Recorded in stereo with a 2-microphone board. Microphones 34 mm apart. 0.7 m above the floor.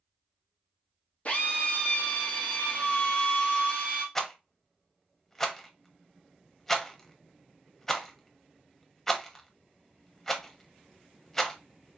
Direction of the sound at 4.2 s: 10° left (ahead or behind).